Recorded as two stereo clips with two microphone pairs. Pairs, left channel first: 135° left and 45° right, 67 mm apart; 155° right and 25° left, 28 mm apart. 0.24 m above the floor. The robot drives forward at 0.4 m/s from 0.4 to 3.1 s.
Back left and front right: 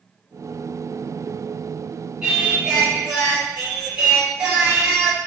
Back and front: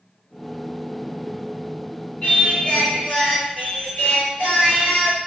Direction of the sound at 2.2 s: 120° right.